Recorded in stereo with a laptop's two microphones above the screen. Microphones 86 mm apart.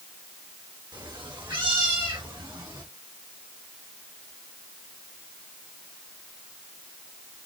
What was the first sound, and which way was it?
A cat meowing, 60° right (ahead or behind).